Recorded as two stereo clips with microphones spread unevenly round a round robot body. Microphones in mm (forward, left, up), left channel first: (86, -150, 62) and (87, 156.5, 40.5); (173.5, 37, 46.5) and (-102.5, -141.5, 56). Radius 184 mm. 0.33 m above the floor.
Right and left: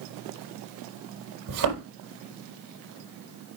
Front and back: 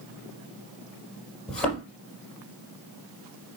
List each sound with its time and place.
1.5 s a thud: 120° left, 4.5 m